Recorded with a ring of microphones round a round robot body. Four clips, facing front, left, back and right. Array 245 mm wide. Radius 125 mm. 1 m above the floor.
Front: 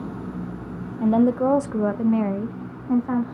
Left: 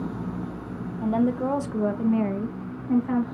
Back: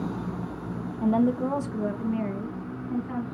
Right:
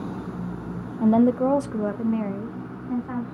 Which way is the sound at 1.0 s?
55° right.